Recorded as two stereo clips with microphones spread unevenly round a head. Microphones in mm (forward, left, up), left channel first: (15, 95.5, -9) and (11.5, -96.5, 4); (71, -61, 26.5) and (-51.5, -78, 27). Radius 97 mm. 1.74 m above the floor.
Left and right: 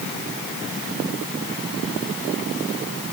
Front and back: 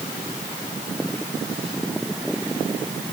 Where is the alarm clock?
I don't hear an alarm clock.